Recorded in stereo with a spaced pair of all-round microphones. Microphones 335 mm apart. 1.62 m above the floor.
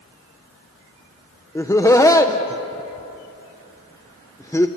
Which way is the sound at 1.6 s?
10° left (ahead or behind).